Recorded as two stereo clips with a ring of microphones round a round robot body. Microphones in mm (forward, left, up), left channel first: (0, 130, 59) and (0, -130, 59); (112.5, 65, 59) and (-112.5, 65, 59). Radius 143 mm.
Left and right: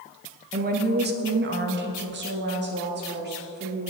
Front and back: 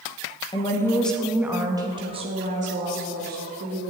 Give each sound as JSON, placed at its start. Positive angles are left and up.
{"t": 0.5, "sound": "a woman speaking", "azimuth_deg": -60, "distance_m": 1.2}